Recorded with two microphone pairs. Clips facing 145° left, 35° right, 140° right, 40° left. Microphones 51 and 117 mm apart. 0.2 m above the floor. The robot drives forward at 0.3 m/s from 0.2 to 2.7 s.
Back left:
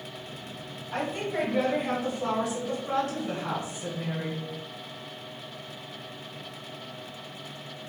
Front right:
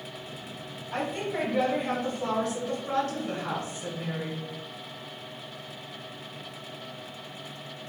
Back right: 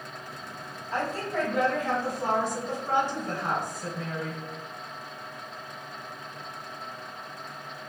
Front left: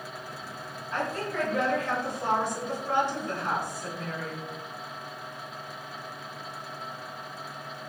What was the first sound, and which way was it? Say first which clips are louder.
A woman speaking: back left 1 dB, back right 2 dB; 125° right.